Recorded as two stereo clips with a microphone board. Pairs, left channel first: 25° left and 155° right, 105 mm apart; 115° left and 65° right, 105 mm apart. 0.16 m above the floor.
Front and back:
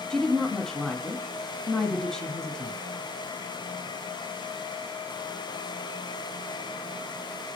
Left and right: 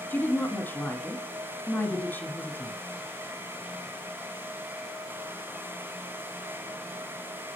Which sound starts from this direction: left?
A woman speaking, at 0.1 s.